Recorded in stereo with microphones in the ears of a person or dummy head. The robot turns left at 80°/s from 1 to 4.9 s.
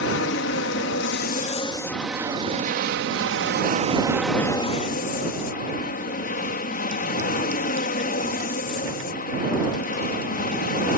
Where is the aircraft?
85° left; by 11.0 s 135° left.